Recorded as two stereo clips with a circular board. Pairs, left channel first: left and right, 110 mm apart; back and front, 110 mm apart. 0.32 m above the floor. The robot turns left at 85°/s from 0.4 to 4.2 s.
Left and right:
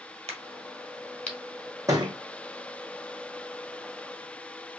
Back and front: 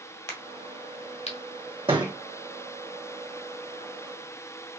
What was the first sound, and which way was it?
A crack, 115° right.